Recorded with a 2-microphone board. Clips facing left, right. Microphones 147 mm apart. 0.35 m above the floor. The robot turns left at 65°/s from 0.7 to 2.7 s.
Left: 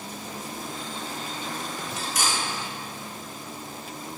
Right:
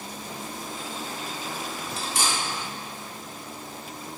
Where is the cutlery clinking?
30° right (ahead or behind), 0.5 m; by 2.4 s 25° right (ahead or behind), 0.5 m.